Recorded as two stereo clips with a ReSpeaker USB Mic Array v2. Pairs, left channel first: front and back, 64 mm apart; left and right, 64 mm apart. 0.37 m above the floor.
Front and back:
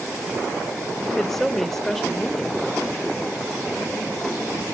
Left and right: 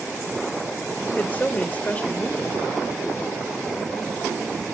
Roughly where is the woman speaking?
Left.